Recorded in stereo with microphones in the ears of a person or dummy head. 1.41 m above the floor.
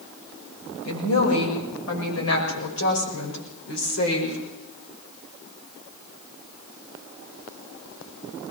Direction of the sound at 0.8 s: 85° left.